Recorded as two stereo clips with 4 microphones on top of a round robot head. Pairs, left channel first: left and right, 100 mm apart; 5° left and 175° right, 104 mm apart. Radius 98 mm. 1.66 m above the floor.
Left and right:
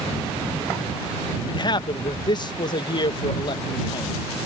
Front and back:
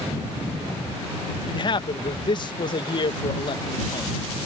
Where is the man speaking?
45° left.